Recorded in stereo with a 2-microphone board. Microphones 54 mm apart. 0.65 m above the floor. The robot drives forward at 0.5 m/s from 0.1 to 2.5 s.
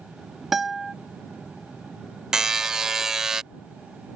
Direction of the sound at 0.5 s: 5° right (ahead or behind).